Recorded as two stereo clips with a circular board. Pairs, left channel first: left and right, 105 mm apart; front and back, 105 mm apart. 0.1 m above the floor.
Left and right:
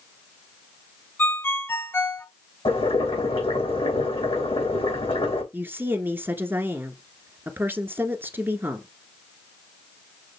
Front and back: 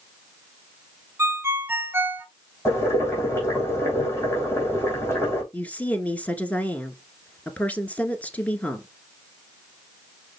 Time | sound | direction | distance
1.2 | a ringtone | 135° left | 0.7 m
2.6 | boiling | 65° left | 3.5 m
5.5 | a woman speaking | 55° right | 1.1 m